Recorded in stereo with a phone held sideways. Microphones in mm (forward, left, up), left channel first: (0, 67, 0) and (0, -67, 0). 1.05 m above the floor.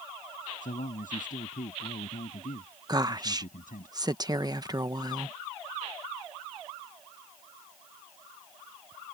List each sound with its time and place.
0.6 s a man speaking: 85° left
2.9 s a woman speaking: 30° right (ahead or behind)